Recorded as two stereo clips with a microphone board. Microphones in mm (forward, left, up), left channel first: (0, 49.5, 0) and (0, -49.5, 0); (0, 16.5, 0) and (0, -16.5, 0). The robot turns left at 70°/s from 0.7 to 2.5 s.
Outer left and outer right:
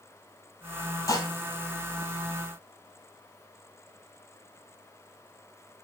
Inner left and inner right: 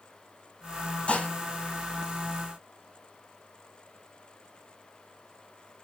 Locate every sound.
1.1 s dishes clattering: 30° left (ahead or behind), 6 m; by 1.3 s 45° left (ahead or behind), 6 m